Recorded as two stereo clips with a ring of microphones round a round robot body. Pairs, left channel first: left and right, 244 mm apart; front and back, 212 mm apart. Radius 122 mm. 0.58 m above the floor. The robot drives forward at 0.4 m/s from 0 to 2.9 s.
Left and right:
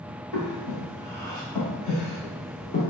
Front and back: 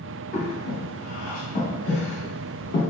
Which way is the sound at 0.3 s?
15° left.